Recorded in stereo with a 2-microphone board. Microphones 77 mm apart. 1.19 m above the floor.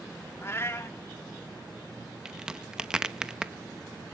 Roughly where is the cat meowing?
Left.